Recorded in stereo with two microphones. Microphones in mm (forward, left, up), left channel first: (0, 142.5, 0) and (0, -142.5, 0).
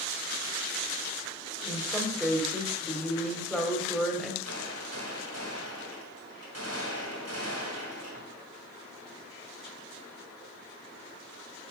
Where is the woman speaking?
Centre (ahead or behind), 1.7 m.